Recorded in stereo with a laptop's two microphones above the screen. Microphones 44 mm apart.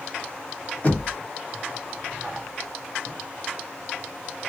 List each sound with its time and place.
0.8 s knocking: 40° left (ahead or behind), 1.0 m